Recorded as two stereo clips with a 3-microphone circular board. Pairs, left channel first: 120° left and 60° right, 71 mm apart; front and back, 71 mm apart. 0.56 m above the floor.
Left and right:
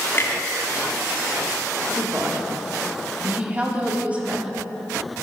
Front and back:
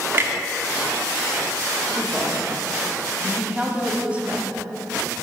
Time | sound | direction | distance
0.1 | a clunk | 150° left | 0.8 m
1.9 | a woman speaking | 120° right | 1.1 m